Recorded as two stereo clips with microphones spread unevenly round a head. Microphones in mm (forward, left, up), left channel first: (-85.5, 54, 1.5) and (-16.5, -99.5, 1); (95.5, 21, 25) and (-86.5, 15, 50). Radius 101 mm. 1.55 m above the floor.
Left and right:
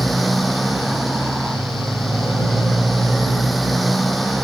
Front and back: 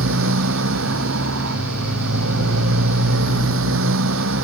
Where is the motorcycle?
155° right.